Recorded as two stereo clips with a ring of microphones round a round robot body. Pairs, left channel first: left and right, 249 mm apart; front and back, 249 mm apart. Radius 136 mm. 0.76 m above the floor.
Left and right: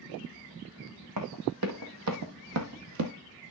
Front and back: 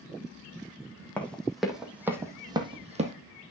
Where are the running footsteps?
85° right, 2.5 m; by 3.1 s 120° right, 1.7 m.